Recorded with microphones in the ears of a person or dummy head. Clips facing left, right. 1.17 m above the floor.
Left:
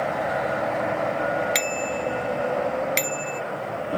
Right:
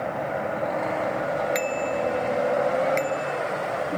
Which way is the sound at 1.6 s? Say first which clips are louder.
Right 2 dB; 40° left (ahead or behind).